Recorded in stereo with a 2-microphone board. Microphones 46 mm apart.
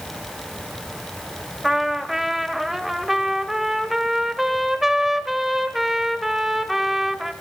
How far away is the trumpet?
About 0.5 m.